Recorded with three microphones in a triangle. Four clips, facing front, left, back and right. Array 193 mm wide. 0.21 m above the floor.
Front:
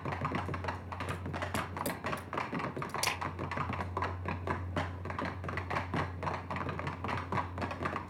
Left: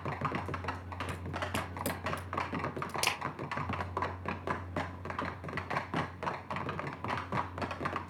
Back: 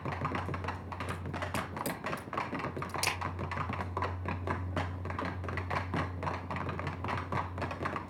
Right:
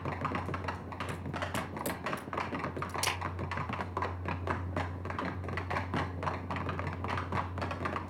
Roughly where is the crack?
Left.